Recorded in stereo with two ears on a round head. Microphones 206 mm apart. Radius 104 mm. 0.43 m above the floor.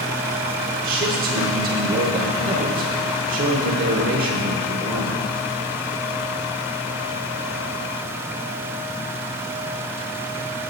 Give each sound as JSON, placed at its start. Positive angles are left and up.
{"t": 0.8, "sound": "a man speaking", "side_deg": -40, "distance_m": 1.0}